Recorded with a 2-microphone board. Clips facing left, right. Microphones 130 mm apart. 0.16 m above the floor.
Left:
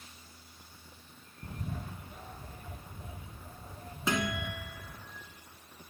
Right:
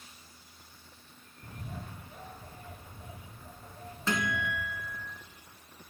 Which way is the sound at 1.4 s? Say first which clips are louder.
Left 3 dB; 30° left (ahead or behind).